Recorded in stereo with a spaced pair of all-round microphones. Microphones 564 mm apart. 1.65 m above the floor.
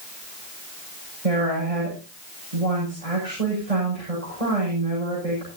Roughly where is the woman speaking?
Right.